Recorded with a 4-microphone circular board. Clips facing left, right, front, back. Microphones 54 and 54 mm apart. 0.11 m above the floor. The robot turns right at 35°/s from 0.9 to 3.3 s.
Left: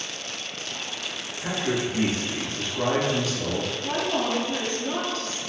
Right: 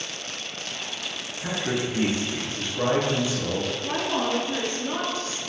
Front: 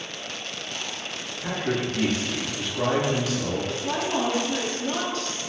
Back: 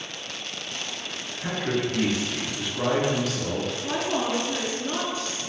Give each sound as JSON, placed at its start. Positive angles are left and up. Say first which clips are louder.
{"t": 1.4, "sound": "a man speaking", "louder": "left 1 dB, even", "azimuth_deg": -150, "distance_m": 1.1}
{"t": 3.8, "sound": "a woman speaking", "louder": "left 2 dB, front 1 dB", "azimuth_deg": -140, "distance_m": 1.1}